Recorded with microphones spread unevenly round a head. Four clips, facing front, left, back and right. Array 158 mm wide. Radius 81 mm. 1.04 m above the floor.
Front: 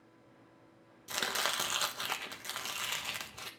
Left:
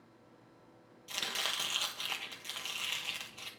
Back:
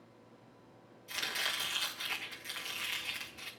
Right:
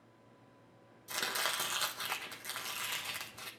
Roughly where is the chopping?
Ahead.